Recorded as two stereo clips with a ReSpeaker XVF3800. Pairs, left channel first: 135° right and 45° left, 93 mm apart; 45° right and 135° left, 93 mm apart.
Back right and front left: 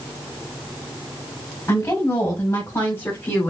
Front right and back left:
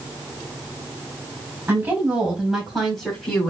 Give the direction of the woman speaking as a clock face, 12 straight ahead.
6 o'clock.